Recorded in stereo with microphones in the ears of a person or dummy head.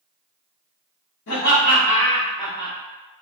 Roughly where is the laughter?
Left.